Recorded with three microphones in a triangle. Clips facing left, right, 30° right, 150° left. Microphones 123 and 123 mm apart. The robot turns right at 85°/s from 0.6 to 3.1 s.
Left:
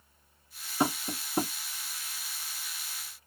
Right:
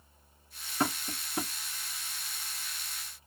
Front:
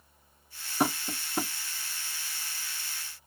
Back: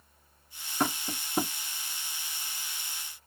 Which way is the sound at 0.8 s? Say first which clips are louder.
Left 3 dB, front 2 dB; 35° left.